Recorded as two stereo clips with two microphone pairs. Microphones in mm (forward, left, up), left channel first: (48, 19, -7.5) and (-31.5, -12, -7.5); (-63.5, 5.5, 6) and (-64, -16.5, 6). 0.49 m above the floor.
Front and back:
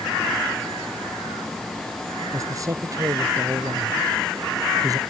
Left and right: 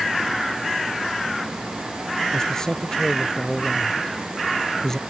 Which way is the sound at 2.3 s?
150° left.